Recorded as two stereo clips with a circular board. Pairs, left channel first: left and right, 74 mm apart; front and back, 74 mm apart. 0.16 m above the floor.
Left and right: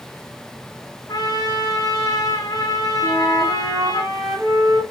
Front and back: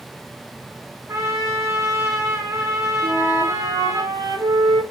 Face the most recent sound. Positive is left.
turn(degrees=-145)